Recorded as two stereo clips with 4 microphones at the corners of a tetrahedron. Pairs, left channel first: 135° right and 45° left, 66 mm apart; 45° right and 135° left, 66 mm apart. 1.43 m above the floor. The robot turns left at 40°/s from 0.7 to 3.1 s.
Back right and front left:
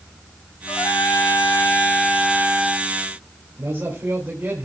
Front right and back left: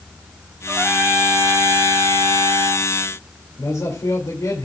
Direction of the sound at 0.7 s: 150° right.